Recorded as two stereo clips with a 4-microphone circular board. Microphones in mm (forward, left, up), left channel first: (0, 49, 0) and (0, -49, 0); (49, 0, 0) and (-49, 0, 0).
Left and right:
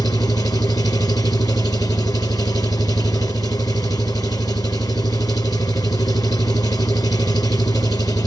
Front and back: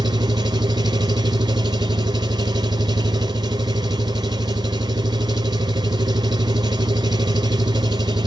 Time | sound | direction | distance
0.0 | an engine running | 140° left | 1.9 m